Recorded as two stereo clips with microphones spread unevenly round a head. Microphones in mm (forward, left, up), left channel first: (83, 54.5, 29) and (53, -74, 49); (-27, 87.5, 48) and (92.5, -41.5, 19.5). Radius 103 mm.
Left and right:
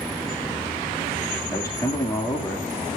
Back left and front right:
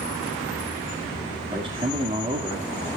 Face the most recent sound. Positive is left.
turn(degrees=10)